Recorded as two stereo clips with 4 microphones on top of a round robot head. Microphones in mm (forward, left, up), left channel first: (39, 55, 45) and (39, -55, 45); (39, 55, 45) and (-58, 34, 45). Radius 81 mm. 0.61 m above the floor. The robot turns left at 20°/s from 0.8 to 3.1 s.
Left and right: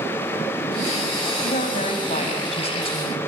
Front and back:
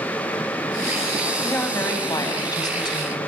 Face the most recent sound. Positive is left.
turn(degrees=50)